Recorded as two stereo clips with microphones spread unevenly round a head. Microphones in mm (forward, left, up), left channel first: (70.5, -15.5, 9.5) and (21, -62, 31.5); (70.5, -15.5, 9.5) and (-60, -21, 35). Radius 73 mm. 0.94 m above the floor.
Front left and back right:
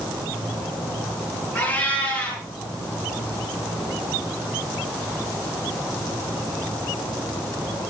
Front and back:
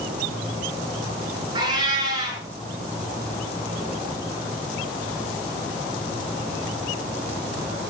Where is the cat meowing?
120° left, 7.5 m.